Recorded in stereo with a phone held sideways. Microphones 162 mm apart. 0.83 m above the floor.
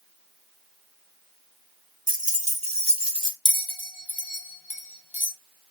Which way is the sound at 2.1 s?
60° right (ahead or behind).